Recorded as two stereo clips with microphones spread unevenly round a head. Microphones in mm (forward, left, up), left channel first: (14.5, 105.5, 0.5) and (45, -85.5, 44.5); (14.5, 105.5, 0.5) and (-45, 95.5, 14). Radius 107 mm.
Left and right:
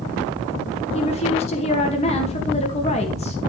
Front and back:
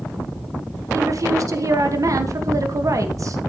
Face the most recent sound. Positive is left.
turn(degrees=160)